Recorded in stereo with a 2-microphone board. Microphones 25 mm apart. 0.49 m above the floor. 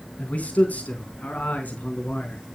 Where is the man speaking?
65° left (ahead or behind), 4 m; by 2.4 s 80° left, 4.5 m.